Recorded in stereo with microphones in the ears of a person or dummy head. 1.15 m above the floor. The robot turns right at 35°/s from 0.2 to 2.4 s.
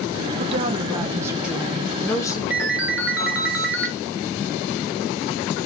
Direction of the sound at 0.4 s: 50° right.